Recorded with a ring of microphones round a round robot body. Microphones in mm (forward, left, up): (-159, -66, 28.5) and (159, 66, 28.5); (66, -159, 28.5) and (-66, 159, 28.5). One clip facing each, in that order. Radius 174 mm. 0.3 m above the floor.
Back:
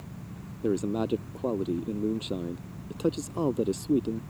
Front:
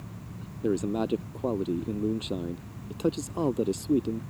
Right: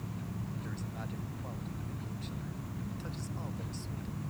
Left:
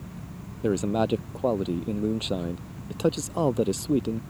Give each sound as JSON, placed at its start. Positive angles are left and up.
{"t": 0.6, "sound": "a man speaking", "azimuth_deg": 110}